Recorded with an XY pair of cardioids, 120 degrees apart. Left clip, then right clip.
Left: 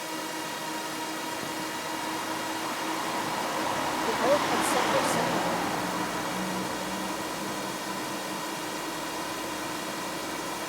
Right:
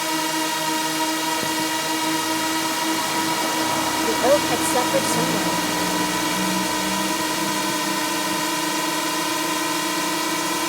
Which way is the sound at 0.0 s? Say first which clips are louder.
Right 11 dB; 65° right.